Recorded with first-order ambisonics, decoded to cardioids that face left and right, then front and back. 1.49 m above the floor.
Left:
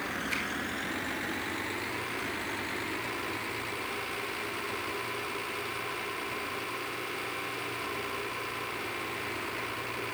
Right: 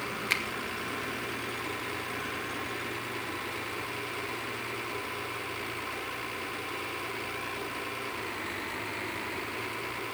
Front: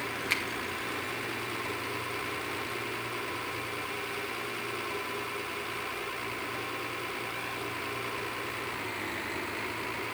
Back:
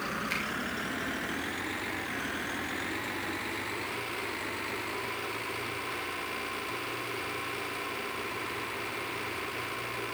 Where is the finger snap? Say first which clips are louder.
Right 6 dB, front 5 dB; 70° right, 1.6 m.